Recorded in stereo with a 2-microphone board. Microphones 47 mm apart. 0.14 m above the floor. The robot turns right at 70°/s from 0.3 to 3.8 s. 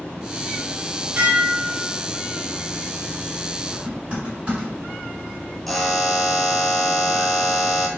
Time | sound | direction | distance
1.2 | dishes clattering | 20° right (ahead or behind) | 0.9 m
3.7 | typing on a keyboard | 25° right (ahead or behind) | 1.9 m
5.7 | a buzzer | 5° left (ahead or behind) | 0.5 m